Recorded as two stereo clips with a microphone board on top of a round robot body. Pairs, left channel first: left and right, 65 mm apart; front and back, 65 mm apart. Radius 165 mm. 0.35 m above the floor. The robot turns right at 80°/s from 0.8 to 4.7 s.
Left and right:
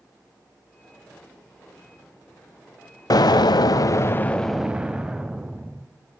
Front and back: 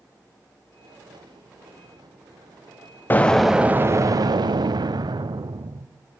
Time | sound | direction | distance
3.1 | an explosion | 65° left | 0.8 m